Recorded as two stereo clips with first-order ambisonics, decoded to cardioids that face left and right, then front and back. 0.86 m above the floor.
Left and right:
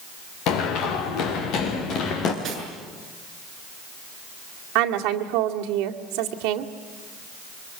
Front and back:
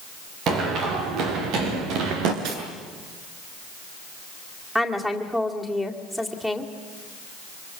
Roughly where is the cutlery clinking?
Behind right.